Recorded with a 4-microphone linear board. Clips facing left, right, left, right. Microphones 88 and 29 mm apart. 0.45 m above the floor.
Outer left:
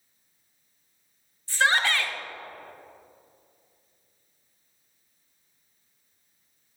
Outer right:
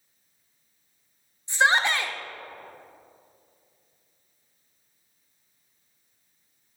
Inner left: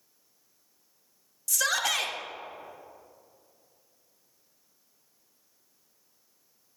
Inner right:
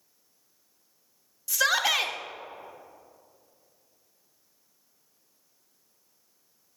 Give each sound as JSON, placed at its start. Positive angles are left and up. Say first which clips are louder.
{"t": 1.5, "sound": "a shout", "louder": "outer right 2 dB, inner right 3 dB", "side_deg": -20, "distance_m": 0.7}